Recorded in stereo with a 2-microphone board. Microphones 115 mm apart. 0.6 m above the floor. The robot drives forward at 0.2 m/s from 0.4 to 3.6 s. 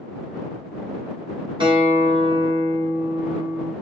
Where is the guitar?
45° right (ahead or behind), 1.9 m; by 3.7 s 35° right (ahead or behind), 2 m.